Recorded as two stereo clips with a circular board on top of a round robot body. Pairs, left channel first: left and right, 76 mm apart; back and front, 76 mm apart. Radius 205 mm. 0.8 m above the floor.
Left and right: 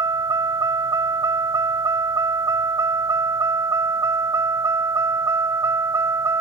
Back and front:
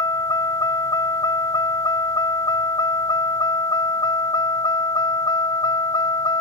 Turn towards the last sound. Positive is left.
turn(degrees=-145)